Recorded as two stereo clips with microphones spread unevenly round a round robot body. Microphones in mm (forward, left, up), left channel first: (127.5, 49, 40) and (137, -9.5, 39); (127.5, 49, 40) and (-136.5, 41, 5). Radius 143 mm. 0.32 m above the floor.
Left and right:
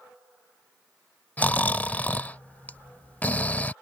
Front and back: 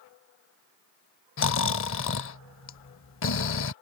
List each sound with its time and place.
1.4 s snoring: 40° left